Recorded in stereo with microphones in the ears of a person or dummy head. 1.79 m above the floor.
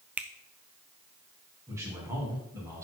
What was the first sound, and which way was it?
A finger snap, 10° right (ahead or behind).